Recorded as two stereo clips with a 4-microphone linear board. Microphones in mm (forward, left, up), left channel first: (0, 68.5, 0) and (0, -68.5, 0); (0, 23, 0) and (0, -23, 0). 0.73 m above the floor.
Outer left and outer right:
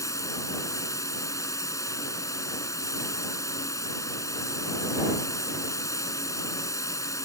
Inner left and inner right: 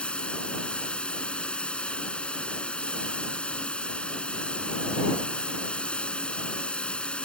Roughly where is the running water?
Left.